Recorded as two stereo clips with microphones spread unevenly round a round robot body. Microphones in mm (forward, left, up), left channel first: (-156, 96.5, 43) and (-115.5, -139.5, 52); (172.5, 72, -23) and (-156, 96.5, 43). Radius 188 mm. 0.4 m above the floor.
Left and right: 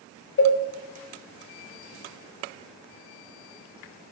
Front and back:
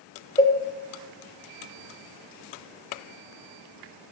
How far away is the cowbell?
About 0.9 m.